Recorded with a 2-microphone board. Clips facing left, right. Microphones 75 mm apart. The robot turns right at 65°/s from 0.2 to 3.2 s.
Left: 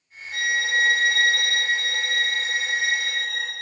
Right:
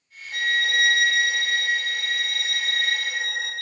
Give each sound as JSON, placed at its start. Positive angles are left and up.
{"t": 0.3, "sound": "a violin", "azimuth_deg": 0, "distance_m": 0.6}